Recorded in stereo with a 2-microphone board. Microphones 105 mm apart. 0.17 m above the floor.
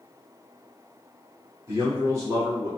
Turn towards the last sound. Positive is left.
turn(degrees=-30)  # may be behind; listen again after turning